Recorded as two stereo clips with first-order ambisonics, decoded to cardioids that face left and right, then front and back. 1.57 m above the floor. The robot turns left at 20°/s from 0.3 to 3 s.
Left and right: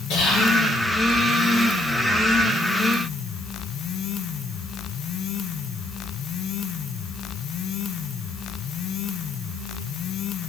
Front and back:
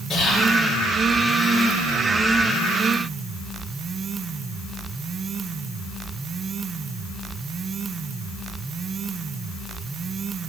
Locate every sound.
0.1 s whispering: 75° left, 3 m; by 0.5 s 70° left, 3 m